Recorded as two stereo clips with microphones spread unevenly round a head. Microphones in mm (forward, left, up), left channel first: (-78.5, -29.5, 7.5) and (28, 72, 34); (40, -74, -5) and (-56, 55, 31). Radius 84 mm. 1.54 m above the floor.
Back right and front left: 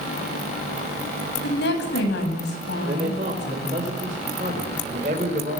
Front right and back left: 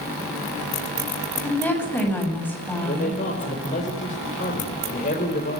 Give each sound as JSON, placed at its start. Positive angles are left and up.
{"t": 1.4, "sound": "a woman speaking", "azimuth_deg": -135, "distance_m": 10.0}
{"t": 2.9, "sound": "a man speaking", "azimuth_deg": -5, "distance_m": 5.0}